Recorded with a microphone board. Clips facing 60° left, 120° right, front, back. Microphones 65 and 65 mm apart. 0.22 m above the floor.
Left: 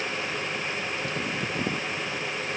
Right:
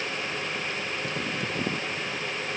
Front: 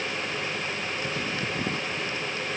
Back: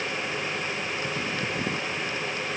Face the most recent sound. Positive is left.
No sound to turn to.